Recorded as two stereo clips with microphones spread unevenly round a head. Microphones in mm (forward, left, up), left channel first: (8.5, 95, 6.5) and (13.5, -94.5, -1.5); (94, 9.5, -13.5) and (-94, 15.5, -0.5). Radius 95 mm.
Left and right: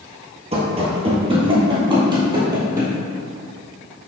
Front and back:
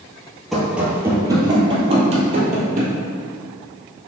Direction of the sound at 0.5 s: 100° right.